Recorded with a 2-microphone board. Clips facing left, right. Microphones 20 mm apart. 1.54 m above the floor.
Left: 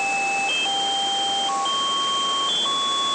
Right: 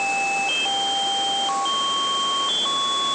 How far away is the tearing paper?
No tearing paper in this recording.